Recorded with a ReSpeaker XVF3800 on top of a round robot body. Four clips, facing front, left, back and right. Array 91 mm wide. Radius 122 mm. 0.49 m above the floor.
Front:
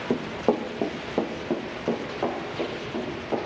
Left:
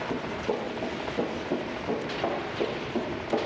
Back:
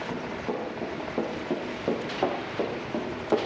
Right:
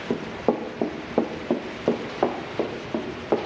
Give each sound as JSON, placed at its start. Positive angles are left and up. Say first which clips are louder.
{"t": 0.1, "sound": "running footsteps", "louder": "right 8 dB, front 10 dB", "azimuth_deg": -40, "distance_m": 1.7}